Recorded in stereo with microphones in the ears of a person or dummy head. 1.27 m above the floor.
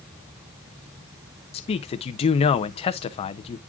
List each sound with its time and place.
1.5 s a man speaking: 30° left (ahead or behind), 0.5 m